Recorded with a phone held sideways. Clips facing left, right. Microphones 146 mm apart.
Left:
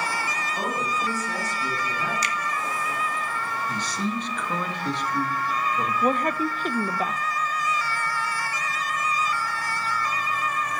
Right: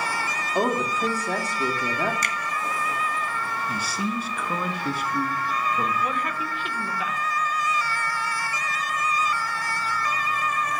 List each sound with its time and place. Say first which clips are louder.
0.6 s a woman speaking: right 6 dB; 65° right (ahead or behind), 1.9 m
2.2 s a finger snap: left 1 dB; 50° right (ahead or behind), 0.7 m
3.7 s a man speaking: even; 5° right (ahead or behind), 1.1 m
6.0 s a woman speaking: left 5 dB; 40° left (ahead or behind), 0.6 m